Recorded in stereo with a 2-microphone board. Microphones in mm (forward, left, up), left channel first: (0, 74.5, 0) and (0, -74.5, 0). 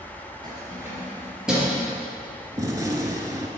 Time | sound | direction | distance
0.4 | keys jangling | 25° right (ahead or behind) | 2.5 m
2.6 | a gunshot | 25° right (ahead or behind) | 0.9 m